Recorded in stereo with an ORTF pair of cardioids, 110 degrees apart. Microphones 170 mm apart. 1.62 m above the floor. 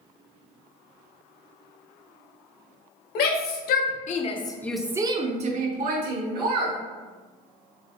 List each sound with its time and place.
3.1 s a shout: 70° left, 1.1 m; by 6.8 s 65° right, 1.4 m